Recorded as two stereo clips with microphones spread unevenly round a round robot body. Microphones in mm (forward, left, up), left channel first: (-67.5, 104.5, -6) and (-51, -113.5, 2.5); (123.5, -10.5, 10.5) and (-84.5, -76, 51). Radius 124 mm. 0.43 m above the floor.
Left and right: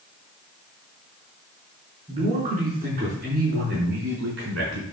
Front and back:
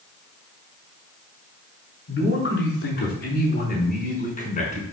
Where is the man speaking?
15° right, 4.5 m; by 4.8 s 40° right, 4 m.